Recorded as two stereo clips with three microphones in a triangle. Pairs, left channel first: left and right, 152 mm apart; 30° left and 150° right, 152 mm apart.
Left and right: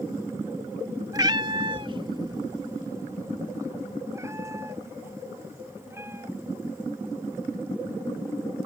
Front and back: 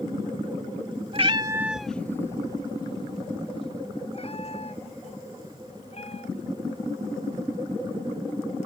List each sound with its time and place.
1.1 s a cat meowing: 140° right; by 6.7 s 15° right